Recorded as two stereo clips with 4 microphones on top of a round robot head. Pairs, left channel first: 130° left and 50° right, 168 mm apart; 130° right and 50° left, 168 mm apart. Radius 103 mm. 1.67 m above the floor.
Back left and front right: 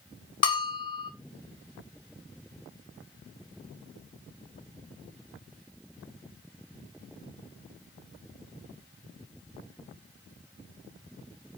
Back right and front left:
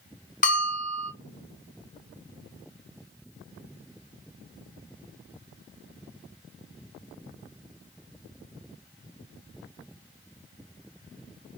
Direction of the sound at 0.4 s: 170° right.